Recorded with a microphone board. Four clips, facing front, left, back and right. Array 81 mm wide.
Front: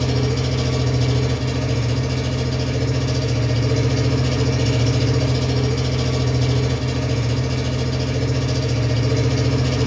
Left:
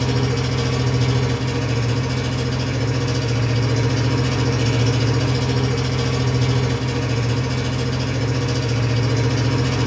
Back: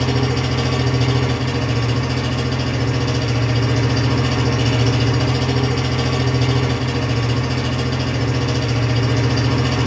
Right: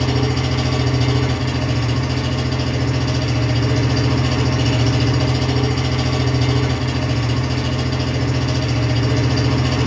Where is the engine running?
155° right, 1.3 m.